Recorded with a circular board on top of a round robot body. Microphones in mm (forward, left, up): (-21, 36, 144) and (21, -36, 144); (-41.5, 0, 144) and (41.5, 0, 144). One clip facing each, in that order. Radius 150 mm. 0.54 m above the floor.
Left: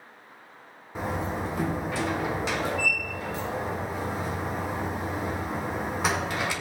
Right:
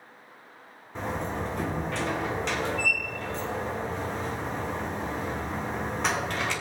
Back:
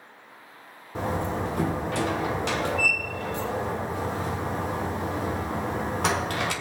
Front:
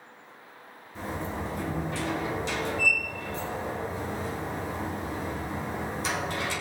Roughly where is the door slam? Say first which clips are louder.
Left 1 dB, back 6 dB; behind right.